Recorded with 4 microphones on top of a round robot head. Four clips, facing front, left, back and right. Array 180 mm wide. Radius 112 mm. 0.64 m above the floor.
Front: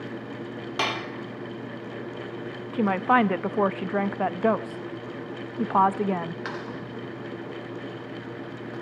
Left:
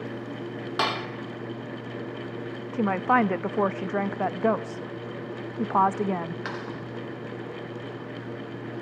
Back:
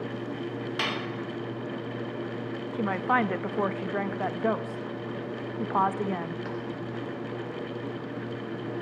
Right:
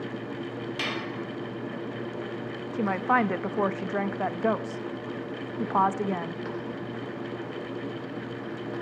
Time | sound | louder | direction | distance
0.8 | dishes clattering | left 8 dB, front 5 dB | 50° left | 1.2 m
2.7 | a woman speaking | left 2 dB, front 5 dB | 25° left | 0.7 m